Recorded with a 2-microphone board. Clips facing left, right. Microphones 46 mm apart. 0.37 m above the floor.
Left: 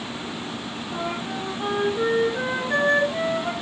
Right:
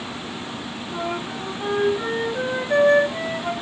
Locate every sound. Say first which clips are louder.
0.9 s a flute: right 1 dB; centre (ahead or behind), 5 m